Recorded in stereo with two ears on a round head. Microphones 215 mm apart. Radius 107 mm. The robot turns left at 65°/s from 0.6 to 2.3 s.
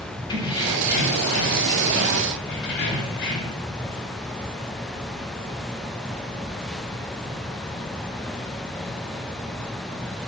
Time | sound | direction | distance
0.3 | keys jangling | 160° left | 3.5 m